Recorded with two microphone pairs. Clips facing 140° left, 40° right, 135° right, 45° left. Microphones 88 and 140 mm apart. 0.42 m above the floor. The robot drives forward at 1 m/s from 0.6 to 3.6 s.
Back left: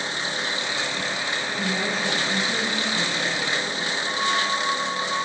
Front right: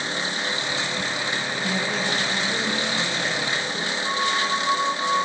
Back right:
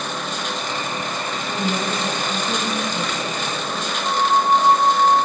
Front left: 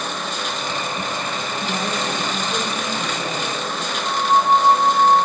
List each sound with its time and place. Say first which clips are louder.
1.6 s a woman speaking: back left 1 dB, back right 3 dB; 165° right, 5 m; by 3.9 s 170° right, 6.5 m
4.0 s a flute: front right 1 dB, front left 1 dB; 70° right, 1.9 m